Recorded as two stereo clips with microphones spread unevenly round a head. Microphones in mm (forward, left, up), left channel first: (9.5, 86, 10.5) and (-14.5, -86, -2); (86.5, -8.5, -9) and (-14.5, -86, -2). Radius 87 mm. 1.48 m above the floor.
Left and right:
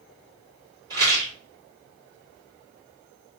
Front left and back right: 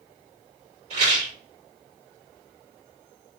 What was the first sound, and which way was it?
A rattle, 165° right.